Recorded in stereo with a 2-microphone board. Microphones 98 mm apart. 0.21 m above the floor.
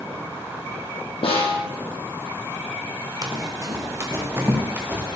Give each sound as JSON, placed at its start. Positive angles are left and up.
{"t": 1.2, "sound": "a snare drum", "side_deg": 80, "distance_m": 4.0}
{"t": 3.2, "sound": "running footsteps", "side_deg": -40, "distance_m": 3.0}